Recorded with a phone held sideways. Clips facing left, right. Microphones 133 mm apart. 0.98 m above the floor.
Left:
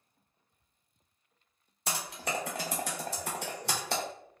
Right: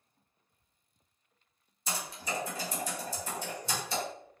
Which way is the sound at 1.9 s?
70° left (ahead or behind).